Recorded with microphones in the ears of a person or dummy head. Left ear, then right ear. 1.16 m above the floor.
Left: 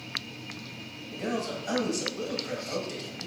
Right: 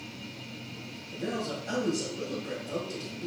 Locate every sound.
1.1 s a man speaking: 70° left (ahead or behind), 1.9 m